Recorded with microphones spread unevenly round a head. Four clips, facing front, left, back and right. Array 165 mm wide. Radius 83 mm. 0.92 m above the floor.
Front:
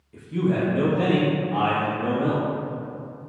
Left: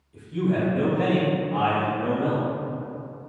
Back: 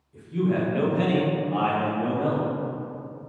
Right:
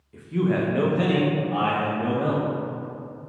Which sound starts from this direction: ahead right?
A man speaking, at 0.1 s.